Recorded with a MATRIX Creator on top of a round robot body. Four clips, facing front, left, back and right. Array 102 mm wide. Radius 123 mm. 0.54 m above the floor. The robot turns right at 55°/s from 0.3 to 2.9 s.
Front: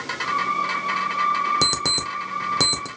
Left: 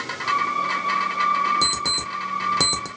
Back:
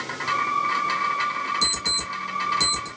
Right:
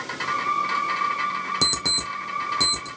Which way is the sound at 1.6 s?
15° right.